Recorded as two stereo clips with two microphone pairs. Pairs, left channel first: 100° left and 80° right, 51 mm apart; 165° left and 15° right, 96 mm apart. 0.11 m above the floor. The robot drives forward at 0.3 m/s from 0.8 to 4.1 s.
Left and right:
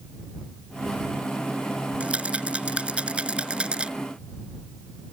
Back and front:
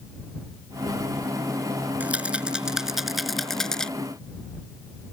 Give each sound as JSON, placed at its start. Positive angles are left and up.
{"t": 2.0, "sound": "a rattle", "azimuth_deg": -65}